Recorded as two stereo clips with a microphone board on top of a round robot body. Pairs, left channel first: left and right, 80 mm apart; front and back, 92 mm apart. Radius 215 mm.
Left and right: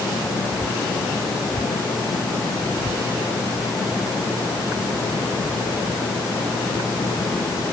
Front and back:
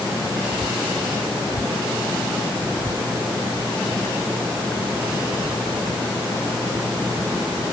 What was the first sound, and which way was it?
Only background noise.